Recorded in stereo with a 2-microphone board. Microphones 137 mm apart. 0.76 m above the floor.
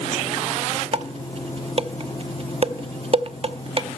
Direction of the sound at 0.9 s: 45° right (ahead or behind).